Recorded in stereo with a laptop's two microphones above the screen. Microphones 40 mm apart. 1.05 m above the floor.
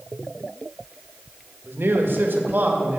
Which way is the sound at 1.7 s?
65° right (ahead or behind).